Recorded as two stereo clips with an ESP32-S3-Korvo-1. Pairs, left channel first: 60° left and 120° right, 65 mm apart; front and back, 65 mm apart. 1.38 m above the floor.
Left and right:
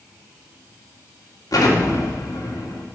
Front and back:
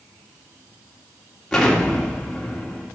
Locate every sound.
1.5 s an explosion: 85° left, 2 m